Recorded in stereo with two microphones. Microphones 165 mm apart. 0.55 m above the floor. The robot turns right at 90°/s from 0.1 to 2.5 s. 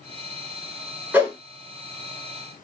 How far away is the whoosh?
About 0.9 m.